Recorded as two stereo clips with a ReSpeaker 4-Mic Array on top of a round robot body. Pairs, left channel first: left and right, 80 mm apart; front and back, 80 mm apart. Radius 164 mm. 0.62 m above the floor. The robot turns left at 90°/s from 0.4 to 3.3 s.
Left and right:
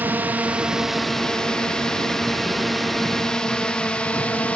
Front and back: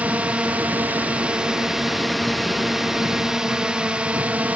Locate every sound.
0.0 s a drone: 125° right; by 4.6 s 140° left